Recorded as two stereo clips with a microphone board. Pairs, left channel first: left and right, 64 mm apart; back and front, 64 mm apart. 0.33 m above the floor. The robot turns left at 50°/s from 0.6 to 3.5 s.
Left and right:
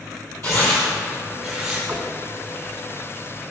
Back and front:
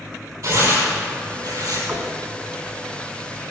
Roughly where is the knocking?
Ahead right.